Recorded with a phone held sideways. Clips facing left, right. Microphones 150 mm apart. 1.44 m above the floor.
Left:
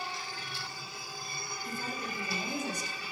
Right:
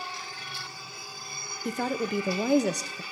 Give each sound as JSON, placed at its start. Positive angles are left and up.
{"t": 1.6, "sound": "a woman speaking", "side_deg": -75, "distance_m": 0.6}